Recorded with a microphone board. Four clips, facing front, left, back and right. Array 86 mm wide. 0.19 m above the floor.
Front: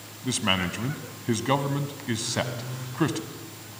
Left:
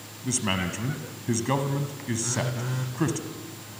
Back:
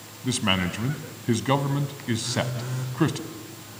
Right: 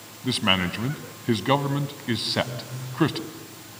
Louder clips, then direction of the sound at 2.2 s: Right 2 dB, back 1 dB; 105° left.